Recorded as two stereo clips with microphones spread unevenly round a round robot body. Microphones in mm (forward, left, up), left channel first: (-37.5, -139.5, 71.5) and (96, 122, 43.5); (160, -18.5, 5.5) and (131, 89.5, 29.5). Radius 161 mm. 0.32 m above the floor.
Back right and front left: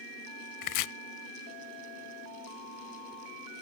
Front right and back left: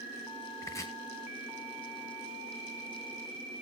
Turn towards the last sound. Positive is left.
turn(degrees=-145)